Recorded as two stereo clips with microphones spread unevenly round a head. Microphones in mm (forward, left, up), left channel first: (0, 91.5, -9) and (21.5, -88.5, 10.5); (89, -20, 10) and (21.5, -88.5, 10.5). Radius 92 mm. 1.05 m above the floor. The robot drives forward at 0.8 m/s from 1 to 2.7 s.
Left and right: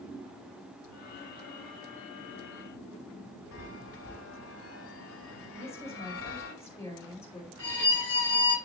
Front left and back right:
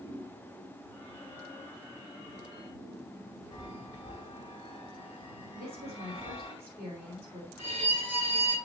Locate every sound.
3.5 s a chime: 115° left, 1.7 m
5.5 s a woman speaking: 175° left, 5 m
7.6 s a violin: 175° left, 6.5 m